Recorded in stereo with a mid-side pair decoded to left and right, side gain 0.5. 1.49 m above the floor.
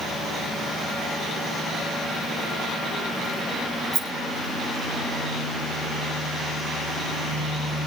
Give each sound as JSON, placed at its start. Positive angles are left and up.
{"t": 3.9, "sound": "a rattle", "azimuth_deg": -70, "distance_m": 3.0}